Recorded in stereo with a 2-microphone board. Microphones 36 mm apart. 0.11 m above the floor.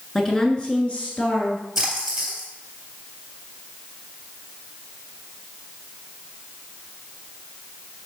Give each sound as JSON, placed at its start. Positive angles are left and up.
{"t": 0.1, "sound": "a woman speaking", "side_deg": 15, "distance_m": 1.1}
{"t": 1.8, "sound": "a splash", "side_deg": -10, "distance_m": 3.0}